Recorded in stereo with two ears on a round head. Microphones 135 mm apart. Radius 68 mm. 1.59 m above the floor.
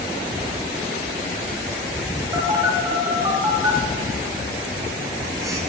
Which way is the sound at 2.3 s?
20° right (ahead or behind).